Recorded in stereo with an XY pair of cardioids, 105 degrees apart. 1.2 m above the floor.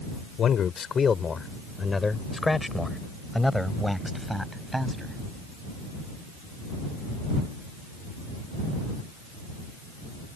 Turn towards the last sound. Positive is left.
turn(degrees=-10)